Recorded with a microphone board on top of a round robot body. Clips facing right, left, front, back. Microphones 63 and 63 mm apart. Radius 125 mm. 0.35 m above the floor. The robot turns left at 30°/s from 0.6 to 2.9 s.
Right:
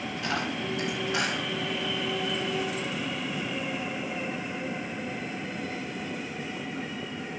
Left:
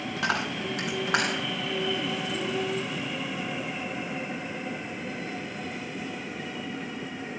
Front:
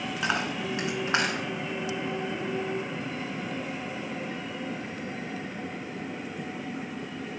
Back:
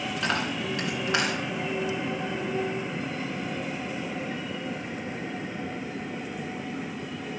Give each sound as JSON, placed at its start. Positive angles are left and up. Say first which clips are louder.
{"t": 0.2, "sound": "a dropped coin", "louder": "left 3 dB, even", "azimuth_deg": 80, "distance_m": 3.0}